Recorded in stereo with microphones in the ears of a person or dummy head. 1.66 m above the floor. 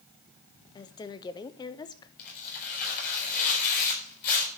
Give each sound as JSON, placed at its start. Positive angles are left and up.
{"t": 0.8, "sound": "a woman speaking", "side_deg": 25, "distance_m": 0.6}
{"t": 2.2, "sound": "tearing paper", "side_deg": 50, "distance_m": 4.0}